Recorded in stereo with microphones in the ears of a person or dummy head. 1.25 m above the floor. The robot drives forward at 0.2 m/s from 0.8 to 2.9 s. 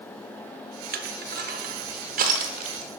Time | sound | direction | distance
0.9 | crushing | 45° right (ahead or behind) | 0.8 m